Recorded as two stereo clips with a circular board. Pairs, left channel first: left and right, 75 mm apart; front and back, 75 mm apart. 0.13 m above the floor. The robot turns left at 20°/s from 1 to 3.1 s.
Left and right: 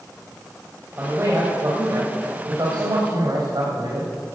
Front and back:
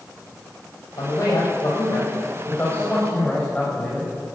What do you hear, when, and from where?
1.0 s a man speaking: 35° right, 4.5 m; by 4.1 s 80° right, 4.5 m